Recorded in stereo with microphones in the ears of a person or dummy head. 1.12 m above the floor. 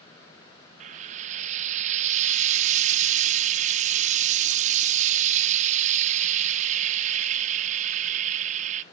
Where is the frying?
40° right (ahead or behind), 1.0 m.